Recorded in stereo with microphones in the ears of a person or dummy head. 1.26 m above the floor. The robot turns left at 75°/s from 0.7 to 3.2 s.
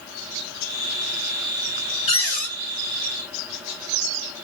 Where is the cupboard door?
140° left, 1.6 m; by 2.5 s 110° left, 1.6 m.